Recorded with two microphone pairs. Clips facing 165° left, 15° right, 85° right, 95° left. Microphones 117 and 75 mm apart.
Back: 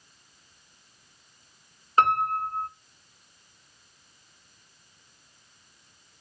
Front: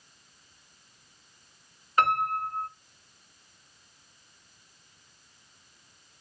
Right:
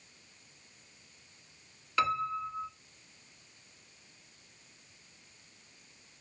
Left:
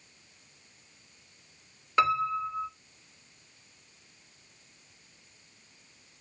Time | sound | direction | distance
2.0 | a piano | 135° left | 1.9 m